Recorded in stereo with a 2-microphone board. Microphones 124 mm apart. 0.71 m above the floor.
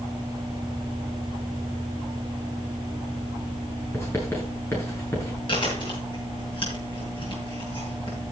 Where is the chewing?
40° left (ahead or behind), 7.5 m.